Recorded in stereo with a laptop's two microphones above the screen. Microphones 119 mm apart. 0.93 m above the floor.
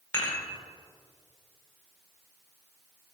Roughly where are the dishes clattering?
Left.